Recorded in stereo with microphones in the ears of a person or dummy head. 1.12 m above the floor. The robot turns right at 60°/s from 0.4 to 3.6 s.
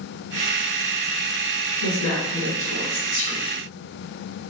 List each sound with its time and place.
1.8 s a woman speaking: 60° left, 1.8 m; by 3.4 s 160° left, 1.8 m